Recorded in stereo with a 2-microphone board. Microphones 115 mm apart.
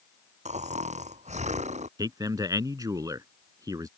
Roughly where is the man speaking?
Right.